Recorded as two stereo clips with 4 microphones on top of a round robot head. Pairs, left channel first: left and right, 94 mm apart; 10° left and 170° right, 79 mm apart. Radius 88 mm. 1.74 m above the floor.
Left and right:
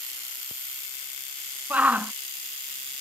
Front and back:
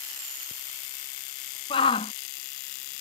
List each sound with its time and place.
1.7 s a shout: 15° right